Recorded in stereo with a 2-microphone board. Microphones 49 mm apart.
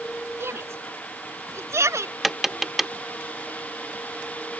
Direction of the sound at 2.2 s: 5° right (ahead or behind).